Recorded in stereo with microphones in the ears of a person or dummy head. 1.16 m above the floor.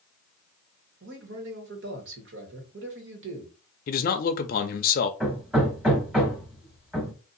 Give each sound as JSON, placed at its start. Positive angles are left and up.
{"t": 1.0, "sound": "a man speaking", "side_deg": -70, "distance_m": 1.4}
{"t": 3.9, "sound": "a man speaking", "side_deg": 50, "distance_m": 0.5}
{"t": 5.2, "sound": "hammering", "side_deg": -5, "distance_m": 1.1}